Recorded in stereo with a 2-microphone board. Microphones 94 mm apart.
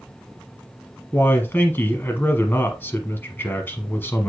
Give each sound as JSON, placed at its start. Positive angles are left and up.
{"t": 1.1, "sound": "a man speaking", "side_deg": 20, "distance_m": 1.1}